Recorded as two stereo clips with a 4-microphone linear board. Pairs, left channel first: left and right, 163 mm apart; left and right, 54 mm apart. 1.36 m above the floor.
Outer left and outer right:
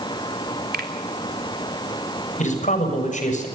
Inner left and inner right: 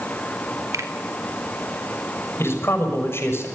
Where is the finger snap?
75° right (ahead or behind), 3.5 m.